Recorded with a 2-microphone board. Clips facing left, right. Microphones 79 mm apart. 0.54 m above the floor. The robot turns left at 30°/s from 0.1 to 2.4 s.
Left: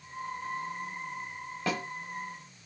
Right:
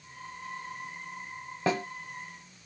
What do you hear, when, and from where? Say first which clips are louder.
1.7 s a snare drum: right 4 dB; 25° right (ahead or behind), 0.9 m; by 1.8 s 30° right (ahead or behind), 0.9 m